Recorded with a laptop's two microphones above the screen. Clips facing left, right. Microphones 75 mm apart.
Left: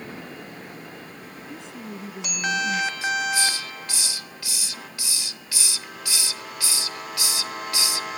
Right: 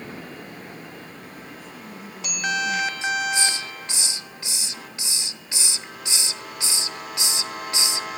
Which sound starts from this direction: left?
A woman speaking, at 1.5 s.